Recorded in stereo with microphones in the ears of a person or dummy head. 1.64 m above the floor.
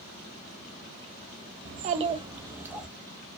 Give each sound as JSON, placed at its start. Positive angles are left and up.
{"t": 1.6, "sound": "a child speaking", "side_deg": -45, "distance_m": 0.5}